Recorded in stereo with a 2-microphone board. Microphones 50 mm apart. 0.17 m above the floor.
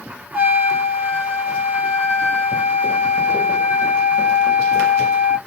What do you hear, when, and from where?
0.3 s a trumpet: 35° right (ahead or behind), 0.9 m